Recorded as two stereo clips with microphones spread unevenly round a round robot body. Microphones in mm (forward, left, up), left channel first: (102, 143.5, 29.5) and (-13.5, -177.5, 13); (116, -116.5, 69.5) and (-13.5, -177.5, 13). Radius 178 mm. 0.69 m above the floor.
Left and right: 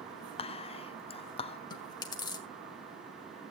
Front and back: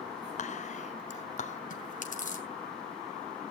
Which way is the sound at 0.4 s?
10° left.